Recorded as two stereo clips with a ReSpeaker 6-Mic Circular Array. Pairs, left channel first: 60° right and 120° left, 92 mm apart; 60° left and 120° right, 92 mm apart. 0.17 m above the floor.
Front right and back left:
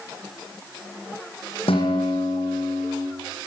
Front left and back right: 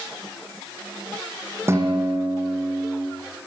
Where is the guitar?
60° right, 7.5 m.